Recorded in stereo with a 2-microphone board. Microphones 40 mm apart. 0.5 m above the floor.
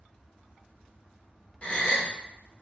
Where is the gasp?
35° left (ahead or behind), 0.5 m.